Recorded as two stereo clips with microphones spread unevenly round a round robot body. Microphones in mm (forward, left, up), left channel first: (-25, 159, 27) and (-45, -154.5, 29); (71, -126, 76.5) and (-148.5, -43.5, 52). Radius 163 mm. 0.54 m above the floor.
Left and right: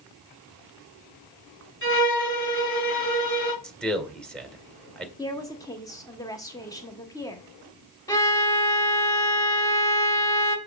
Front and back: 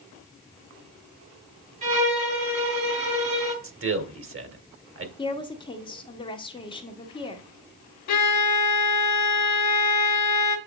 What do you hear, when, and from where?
1.8 s a violin: 140° left, 3.5 m
3.6 s a man speaking: 175° left, 1.7 m
5.2 s a woman speaking: 30° left, 1.0 m
8.1 s a violin: 5° left, 0.9 m